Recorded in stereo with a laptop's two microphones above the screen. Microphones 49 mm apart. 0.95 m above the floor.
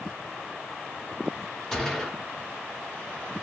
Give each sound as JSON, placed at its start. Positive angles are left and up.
{"t": 1.7, "sound": "a gunshot", "side_deg": 10, "distance_m": 1.6}